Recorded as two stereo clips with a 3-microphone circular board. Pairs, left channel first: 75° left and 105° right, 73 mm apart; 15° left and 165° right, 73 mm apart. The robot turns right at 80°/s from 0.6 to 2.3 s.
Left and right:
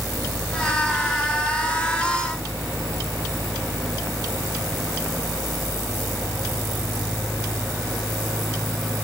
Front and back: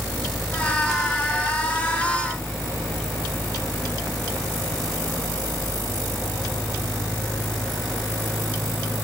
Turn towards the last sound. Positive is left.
No sound to turn to.